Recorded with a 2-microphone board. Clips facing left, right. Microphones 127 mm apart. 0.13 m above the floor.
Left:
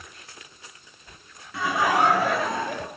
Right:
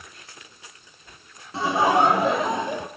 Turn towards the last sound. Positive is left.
turn(degrees=-20)  # may be behind; listen again after turning